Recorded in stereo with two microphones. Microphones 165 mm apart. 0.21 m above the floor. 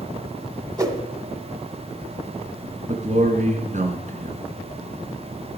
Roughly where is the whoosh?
Right.